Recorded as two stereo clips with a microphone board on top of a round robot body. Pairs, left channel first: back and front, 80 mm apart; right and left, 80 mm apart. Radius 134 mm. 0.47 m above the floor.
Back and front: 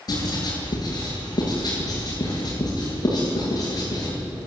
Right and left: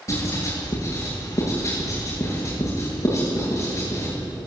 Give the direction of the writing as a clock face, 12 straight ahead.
5 o'clock.